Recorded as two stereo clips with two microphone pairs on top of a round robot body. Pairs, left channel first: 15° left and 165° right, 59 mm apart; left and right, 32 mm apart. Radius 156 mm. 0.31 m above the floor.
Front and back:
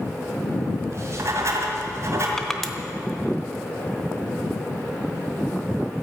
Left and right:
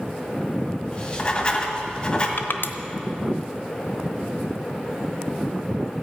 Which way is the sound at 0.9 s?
150° left.